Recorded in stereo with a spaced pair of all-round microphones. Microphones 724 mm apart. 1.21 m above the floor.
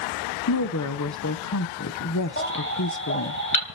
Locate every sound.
0.5 s a woman speaking: 25° left (ahead or behind), 0.8 m
2.4 s a baby crying: 15° left (ahead or behind), 3 m